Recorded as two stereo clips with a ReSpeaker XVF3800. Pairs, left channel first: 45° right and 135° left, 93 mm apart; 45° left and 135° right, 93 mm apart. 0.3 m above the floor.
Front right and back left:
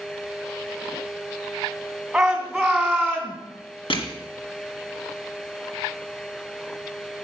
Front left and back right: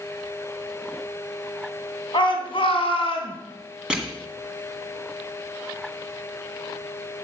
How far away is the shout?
About 2.5 m.